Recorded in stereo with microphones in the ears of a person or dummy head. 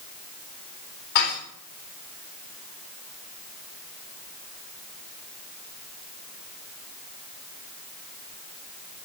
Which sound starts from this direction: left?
Dishes clattering, at 1.1 s.